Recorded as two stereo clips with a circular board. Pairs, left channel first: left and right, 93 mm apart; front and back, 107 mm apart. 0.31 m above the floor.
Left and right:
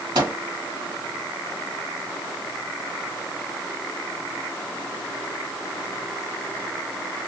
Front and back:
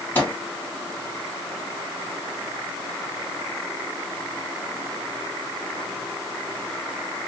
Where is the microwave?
65° right, 1.8 m.